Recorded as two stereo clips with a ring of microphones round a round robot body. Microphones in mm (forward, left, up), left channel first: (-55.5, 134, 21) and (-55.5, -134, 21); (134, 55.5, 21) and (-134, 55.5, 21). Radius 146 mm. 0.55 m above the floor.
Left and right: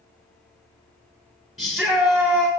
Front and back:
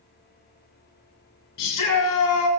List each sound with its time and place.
1.6 s a shout: straight ahead, 6 m